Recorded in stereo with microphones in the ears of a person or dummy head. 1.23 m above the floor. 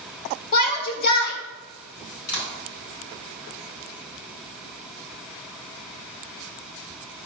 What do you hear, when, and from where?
0.5 s a shout: 75° left (ahead or behind), 1.8 m
2.3 s a clap: 85° left, 4.5 m